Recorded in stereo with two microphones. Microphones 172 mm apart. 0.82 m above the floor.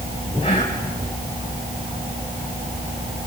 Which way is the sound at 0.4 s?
30° left (ahead or behind).